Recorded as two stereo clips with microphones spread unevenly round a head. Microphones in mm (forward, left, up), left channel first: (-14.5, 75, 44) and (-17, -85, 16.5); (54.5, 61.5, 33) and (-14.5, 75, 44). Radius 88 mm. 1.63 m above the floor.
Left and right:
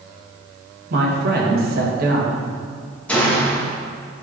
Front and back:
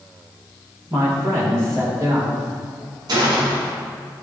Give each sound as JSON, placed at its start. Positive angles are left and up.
{"t": 0.9, "sound": "a man speaking", "azimuth_deg": -120, "distance_m": 2.0}
{"t": 3.1, "sound": "a gunshot", "azimuth_deg": 165, "distance_m": 1.4}